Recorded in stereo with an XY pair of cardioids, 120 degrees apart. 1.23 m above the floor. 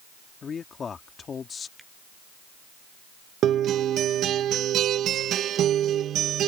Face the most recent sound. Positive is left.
turn(degrees=-60)